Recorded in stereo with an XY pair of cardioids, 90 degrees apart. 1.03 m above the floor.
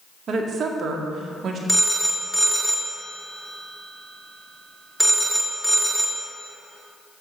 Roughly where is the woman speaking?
Ahead right.